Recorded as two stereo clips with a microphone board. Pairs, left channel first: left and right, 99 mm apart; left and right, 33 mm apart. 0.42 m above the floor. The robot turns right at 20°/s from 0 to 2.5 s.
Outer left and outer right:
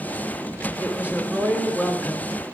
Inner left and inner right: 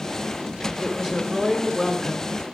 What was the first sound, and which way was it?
A woman speaking, 25° right.